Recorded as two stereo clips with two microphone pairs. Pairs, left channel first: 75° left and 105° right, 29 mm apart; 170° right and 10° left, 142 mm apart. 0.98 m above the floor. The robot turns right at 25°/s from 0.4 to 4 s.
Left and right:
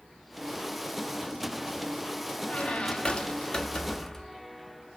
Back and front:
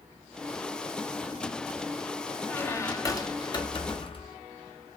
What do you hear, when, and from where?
2.5 s a squeak: 110° left, 0.7 m; by 4.4 s 145° left, 0.7 m